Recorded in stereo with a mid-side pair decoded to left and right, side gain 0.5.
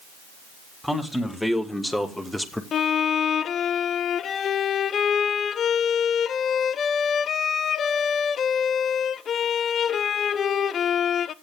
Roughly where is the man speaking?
Ahead.